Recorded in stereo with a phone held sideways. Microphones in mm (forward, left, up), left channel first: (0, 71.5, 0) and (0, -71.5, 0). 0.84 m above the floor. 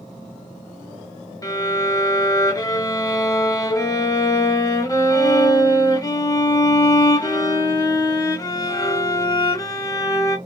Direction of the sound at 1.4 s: 25° left (ahead or behind).